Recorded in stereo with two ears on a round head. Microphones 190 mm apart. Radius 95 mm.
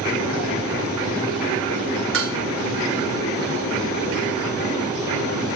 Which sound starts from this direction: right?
Dishes clattering, at 2.1 s.